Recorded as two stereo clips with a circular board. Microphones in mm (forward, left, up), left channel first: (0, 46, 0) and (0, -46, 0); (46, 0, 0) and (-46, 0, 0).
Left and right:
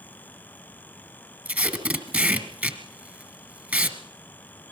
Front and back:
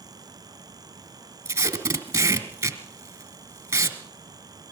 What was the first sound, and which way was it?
Tape being pulled, 150° right.